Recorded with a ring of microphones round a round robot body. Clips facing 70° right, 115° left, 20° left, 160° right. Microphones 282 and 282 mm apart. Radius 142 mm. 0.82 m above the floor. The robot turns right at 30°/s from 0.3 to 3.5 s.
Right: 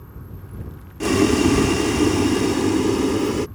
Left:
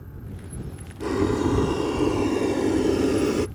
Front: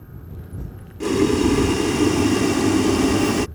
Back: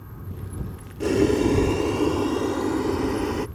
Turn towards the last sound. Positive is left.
turn(degrees=20)